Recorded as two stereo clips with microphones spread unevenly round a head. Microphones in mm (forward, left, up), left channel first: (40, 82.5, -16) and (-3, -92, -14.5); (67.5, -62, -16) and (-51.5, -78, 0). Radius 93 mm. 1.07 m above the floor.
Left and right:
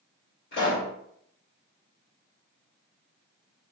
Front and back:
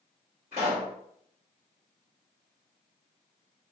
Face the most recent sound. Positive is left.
turn(degrees=110)